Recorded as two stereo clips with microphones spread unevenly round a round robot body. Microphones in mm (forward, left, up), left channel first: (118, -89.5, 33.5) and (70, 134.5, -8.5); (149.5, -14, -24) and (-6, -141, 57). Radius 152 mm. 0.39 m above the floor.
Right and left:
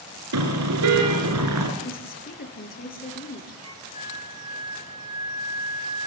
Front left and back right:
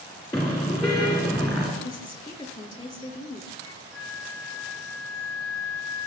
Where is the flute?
30° left, 2 m.